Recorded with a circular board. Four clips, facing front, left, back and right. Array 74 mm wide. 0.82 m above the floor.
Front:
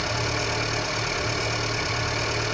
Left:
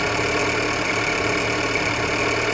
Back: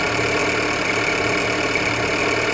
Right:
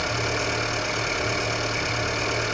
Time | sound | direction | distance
0.0 | an engine running | 150° left | 7 m